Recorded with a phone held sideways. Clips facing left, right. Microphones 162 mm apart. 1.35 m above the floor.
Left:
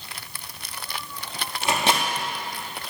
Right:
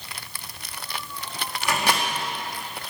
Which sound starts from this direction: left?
A microwave, at 1.6 s.